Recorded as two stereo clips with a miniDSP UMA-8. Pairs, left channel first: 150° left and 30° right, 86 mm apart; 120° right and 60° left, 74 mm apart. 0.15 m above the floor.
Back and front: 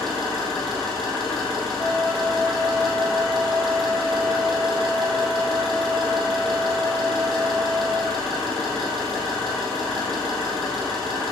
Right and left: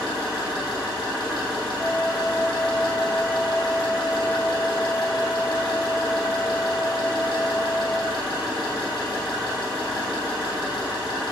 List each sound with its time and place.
0.0 s an engine running: 125° right, 3 m
1.8 s a flute: 125° right, 1.1 m